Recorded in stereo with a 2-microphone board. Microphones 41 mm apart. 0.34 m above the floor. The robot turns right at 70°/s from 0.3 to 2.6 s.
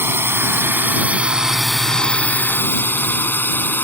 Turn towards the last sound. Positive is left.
turn(degrees=50)  # may be behind; listen again after turning